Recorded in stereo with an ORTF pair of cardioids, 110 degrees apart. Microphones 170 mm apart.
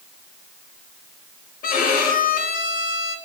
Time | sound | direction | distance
1.6 | a violin | 55° left | 0.9 m